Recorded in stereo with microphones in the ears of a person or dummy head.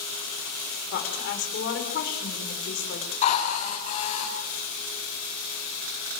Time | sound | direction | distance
0.9 | a woman speaking | 70° left (ahead or behind) | 6 m
3.2 | a drill | 45° left (ahead or behind) | 7.5 m